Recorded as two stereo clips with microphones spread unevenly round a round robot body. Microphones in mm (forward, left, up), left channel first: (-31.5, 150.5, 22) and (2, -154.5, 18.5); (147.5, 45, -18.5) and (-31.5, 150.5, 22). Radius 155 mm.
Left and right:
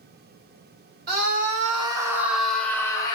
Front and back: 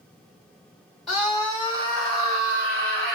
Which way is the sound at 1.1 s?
100° right.